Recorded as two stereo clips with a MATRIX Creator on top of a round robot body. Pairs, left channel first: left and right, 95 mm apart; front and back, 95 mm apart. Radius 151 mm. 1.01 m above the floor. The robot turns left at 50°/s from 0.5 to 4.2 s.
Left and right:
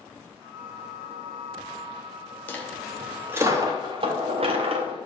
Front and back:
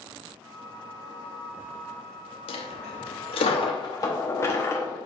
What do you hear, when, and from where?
2.5 s a dropped coin: 20° left, 0.9 m; by 5.0 s 65° right, 0.9 m